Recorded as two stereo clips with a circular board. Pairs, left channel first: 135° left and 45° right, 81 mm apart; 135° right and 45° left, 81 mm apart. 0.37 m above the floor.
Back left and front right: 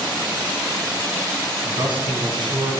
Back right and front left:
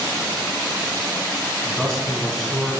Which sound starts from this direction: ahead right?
A man speaking, at 1.6 s.